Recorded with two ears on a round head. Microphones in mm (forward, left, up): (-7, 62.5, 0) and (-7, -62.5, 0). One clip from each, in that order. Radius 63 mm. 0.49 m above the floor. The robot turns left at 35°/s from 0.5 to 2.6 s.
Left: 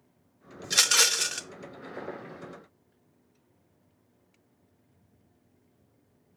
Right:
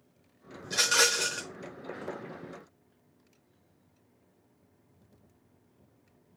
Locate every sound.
0.6 s a rattle: 60° left (ahead or behind), 0.6 m; by 1.4 s 70° left (ahead or behind), 0.6 m